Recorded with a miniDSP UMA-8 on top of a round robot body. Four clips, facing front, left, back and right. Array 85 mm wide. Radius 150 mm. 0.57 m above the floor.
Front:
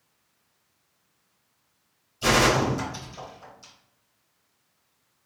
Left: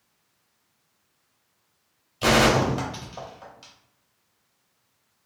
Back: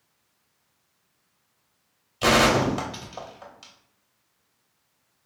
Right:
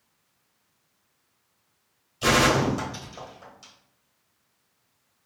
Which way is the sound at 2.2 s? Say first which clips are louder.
Left 2 dB, back 2 dB; 160° left.